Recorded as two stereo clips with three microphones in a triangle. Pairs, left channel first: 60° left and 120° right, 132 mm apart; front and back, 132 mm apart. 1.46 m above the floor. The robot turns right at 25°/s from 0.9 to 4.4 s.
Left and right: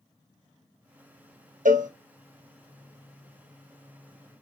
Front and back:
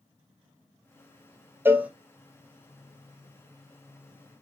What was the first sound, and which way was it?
A cowbell, 105° right.